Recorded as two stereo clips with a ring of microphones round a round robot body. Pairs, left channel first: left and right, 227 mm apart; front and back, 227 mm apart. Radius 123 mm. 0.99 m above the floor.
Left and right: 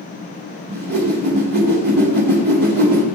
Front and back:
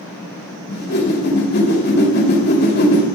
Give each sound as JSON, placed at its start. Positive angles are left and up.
{"t": 0.7, "sound": "a whoosh", "azimuth_deg": -45, "distance_m": 3.0}